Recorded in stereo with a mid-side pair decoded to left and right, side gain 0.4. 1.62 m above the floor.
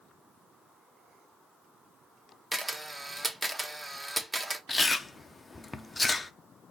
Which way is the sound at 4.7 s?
25° left.